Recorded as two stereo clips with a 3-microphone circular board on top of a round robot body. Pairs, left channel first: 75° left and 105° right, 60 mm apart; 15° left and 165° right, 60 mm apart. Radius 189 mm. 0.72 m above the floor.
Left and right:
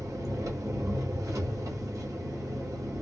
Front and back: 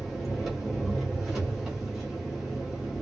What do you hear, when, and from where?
0.0 s an engine running: 75° right, 2 m